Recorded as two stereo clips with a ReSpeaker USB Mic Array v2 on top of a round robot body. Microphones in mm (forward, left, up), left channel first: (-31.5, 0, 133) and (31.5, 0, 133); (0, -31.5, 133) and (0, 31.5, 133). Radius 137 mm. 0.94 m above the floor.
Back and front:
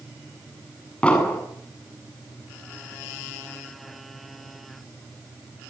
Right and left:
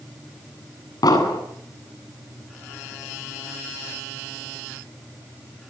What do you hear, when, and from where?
1.0 s an explosion: 105° right, 8 m